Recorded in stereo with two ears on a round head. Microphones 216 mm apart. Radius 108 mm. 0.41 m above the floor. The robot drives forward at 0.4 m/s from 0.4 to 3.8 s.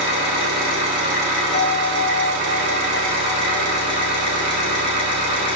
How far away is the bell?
About 1.6 m.